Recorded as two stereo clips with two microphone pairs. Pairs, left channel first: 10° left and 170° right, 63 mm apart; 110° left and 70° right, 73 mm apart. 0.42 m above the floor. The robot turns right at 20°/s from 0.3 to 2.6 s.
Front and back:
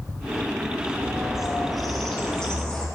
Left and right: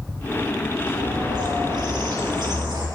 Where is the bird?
95° right, 2.5 m; by 2.9 s 60° right, 2.5 m.